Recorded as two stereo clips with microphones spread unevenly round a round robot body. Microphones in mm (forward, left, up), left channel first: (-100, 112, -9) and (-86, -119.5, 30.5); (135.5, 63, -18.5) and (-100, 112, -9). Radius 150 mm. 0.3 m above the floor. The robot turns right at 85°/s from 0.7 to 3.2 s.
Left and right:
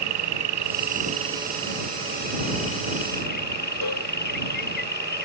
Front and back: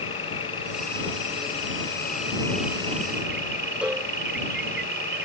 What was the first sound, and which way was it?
An insect, 85° right.